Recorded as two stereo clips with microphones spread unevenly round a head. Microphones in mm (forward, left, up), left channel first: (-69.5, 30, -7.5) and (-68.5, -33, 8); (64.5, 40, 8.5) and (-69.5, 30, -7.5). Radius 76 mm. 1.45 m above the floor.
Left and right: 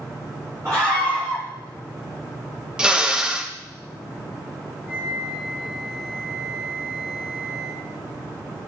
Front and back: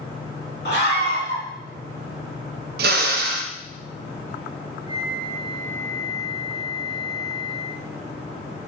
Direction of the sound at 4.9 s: 20° right.